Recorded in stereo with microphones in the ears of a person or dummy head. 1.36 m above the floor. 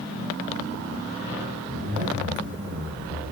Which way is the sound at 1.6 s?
50° right (ahead or behind).